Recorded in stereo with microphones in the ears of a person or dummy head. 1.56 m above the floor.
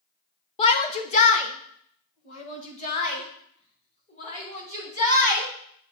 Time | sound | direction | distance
0.6 | a shout | 25° left (ahead or behind) | 0.5 m